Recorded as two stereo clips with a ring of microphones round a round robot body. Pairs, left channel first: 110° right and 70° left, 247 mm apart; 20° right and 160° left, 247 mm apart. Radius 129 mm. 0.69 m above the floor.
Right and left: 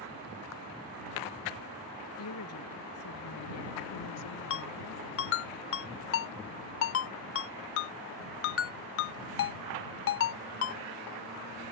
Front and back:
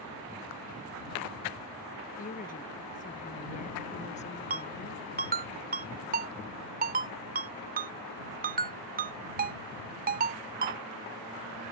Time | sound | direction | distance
2.2 | a woman speaking | 80° right | ?
4.5 | a ringtone | 145° right | ?